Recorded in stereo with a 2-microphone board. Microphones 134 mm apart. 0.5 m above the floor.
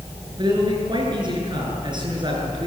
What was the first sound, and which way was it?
A man speaking, 35° right (ahead or behind).